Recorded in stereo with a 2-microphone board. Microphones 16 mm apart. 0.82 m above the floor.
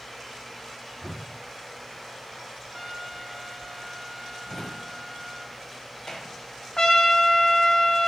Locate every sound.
1.0 s a whoosh: 10° left (ahead or behind), 0.9 m
2.7 s a trumpet: 15° right (ahead or behind), 1.8 m
4.5 s a drawer: 40° left (ahead or behind), 1.3 m
6.8 s a trumpet: 60° left (ahead or behind), 0.9 m